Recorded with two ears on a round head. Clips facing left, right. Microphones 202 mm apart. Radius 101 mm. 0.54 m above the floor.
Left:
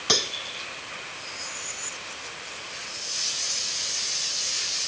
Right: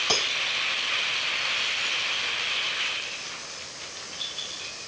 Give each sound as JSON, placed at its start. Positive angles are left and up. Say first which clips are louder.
{"t": 0.1, "sound": "cutlery clinking", "louder": "left 3 dB", "side_deg": 25}